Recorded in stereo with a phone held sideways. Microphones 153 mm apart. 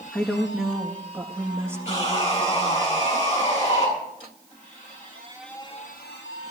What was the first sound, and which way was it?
A woman speaking, 10° left (ahead or behind).